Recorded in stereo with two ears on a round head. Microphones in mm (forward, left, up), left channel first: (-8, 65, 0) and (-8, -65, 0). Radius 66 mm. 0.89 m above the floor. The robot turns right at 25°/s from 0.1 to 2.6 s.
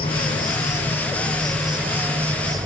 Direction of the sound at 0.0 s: 145° left.